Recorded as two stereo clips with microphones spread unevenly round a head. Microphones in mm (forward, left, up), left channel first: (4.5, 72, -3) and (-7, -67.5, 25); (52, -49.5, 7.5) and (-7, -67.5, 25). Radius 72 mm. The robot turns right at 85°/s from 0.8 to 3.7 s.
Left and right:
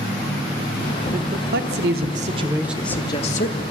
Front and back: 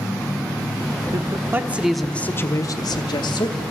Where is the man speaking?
150° right, 1.0 m; by 3.6 s 65° left, 1.0 m.